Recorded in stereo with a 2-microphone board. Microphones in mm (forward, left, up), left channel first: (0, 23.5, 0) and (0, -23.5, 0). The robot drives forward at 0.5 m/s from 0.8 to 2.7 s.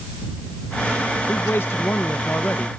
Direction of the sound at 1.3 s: 60° left (ahead or behind).